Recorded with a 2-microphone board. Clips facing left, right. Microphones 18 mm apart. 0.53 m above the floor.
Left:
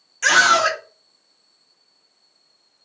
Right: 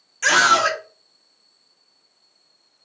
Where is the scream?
5° right (ahead or behind), 0.7 m.